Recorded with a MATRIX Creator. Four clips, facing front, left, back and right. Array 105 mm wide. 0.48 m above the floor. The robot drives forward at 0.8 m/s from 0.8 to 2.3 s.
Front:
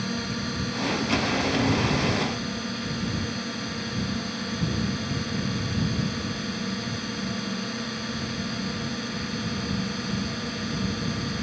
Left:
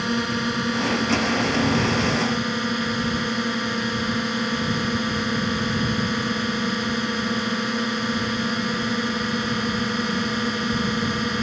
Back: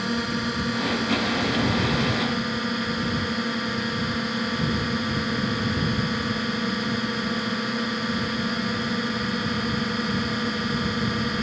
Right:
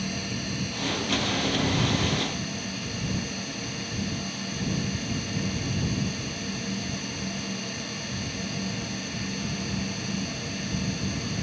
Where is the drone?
110° left; by 11.4 s 115° left.